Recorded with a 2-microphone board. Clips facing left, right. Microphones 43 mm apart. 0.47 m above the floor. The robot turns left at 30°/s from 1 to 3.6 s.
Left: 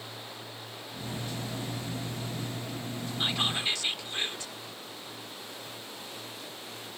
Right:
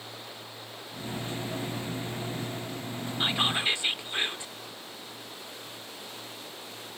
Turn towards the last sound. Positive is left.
turn(degrees=-25)  # may be behind; listen again after turning